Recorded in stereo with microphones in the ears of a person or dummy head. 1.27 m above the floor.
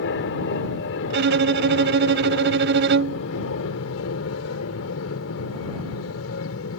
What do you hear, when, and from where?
0.0 s an aircraft: 65° left (ahead or behind); by 6.8 s 75° left (ahead or behind)
1.1 s a violin: 55° right (ahead or behind)